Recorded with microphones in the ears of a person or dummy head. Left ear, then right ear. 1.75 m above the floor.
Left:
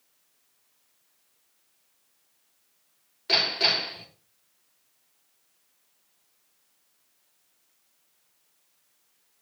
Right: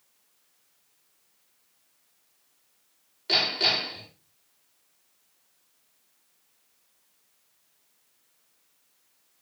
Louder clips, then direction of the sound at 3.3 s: Left 1 dB; 10° left (ahead or behind).